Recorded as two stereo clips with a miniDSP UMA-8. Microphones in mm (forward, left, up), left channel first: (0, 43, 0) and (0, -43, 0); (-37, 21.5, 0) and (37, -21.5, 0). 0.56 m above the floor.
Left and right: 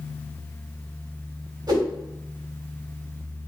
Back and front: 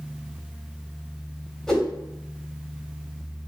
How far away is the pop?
No pop in this recording.